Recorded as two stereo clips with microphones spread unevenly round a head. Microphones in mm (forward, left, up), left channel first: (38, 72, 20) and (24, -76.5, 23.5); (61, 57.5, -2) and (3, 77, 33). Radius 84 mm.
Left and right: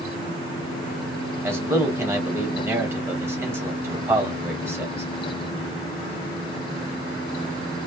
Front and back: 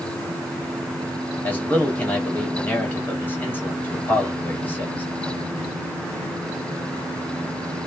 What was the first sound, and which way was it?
A man speaking, 25° right.